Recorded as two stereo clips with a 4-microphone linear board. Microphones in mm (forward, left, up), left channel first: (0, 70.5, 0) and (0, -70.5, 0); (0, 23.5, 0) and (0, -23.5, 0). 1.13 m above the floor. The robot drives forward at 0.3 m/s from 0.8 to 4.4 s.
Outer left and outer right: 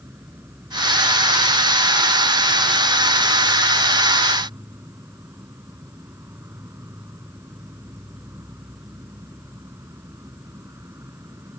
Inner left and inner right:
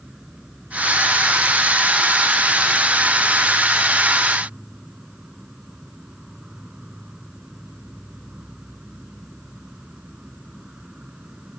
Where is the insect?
20° right (ahead or behind).